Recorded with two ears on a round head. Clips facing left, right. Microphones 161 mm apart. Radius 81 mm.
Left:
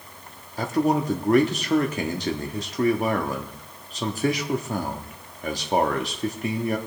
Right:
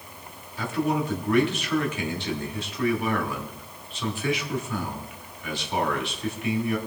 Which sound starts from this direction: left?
A man speaking, at 0.6 s.